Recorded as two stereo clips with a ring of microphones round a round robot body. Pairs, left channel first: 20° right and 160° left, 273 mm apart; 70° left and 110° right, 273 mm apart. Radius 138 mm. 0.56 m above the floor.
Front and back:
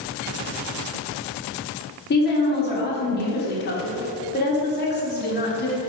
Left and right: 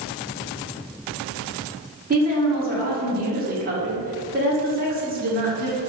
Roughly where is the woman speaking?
Ahead right.